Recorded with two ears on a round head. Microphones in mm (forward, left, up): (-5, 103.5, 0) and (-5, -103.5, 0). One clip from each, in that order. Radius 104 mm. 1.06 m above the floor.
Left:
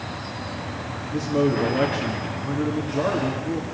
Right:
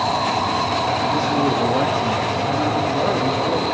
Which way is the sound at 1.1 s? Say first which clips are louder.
Right 4 dB; 10° right (ahead or behind).